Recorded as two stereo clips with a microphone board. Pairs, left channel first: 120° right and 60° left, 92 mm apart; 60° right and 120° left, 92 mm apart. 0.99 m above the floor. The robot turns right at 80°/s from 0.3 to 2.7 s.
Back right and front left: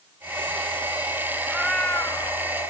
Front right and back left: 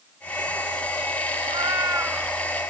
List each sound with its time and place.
1.4 s a cat meowing: 135° left, 0.9 m; by 2.7 s 120° right, 0.9 m